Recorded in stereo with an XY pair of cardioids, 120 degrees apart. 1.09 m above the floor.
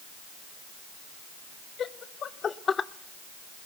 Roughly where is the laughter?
Ahead left.